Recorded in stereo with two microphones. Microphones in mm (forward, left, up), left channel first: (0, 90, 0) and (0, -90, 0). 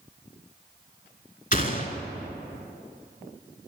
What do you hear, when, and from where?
1.5 s a gunshot: 50° left (ahead or behind), 0.6 m